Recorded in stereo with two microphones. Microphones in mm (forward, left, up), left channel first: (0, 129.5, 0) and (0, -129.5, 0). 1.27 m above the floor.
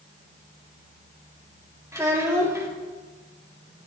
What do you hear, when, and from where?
1.9 s a child speaking: 10° right (ahead or behind), 2 m